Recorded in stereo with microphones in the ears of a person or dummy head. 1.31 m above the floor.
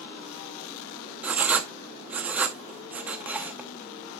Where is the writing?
5° right (ahead or behind), 0.9 m.